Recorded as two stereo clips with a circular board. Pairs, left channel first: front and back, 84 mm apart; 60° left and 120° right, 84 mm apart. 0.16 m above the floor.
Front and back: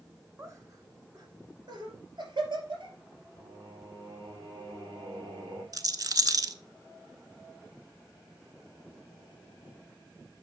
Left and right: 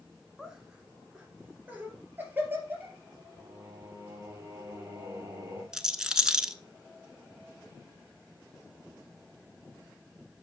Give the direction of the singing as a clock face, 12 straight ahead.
6 o'clock.